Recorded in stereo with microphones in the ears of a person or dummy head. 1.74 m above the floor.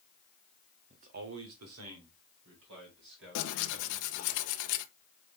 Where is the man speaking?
25° right (ahead or behind), 0.7 m; by 4.3 s 60° right (ahead or behind), 3.5 m.